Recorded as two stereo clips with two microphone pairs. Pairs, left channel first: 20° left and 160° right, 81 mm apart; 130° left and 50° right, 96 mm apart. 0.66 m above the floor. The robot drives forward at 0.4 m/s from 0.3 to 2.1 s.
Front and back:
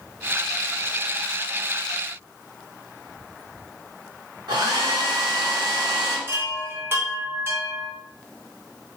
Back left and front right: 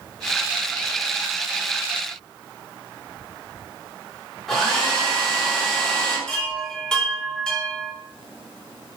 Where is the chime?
165° right, 0.8 m.